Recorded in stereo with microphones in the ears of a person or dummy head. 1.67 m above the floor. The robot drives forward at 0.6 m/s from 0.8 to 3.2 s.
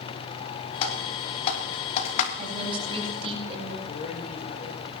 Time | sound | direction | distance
0.8 | typing on a keyboard | 35° left (ahead or behind) | 4 m
2.4 | a woman speaking | 35° right (ahead or behind) | 7 m
3.9 | a man speaking | 40° left (ahead or behind) | 7.5 m